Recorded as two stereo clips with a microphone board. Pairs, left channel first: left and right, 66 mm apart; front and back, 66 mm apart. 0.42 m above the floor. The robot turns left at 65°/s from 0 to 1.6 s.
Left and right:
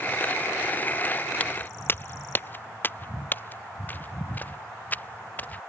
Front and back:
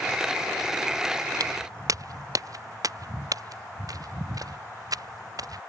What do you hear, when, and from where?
1.4 s footsteps: 160° left; by 5.6 s 155° left